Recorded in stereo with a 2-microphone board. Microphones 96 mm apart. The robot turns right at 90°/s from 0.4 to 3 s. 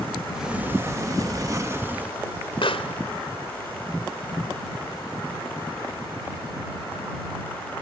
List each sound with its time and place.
0.3 s a sliding door: 170° right; by 2.1 s 15° right
2.6 s a pop: 65° left (ahead or behind); by 7.0 s 80° left